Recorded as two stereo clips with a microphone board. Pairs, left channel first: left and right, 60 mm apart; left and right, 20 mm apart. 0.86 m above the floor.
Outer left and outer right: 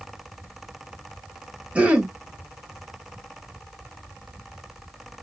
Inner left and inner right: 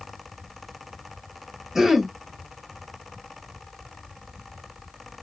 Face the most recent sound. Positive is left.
turn(degrees=-20)  # may be behind; listen again after turning